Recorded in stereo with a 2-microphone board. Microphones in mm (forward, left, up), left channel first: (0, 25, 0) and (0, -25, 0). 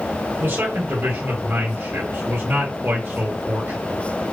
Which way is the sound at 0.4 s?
45° right (ahead or behind).